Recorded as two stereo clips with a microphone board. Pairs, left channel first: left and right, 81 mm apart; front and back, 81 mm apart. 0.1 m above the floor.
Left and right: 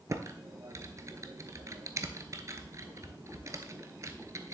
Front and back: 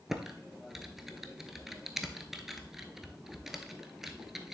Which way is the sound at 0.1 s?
95° right.